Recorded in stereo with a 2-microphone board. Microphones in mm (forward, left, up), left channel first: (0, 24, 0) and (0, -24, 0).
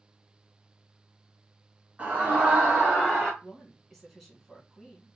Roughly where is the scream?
Right.